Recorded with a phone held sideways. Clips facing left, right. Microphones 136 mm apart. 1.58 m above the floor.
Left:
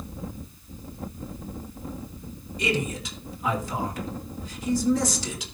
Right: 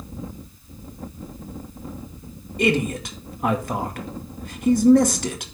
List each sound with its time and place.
2.6 s a man speaking: 60° right (ahead or behind), 2 m